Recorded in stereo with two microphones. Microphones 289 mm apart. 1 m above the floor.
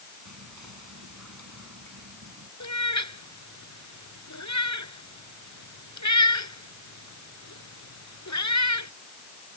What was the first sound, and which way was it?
Whispering, 80° right.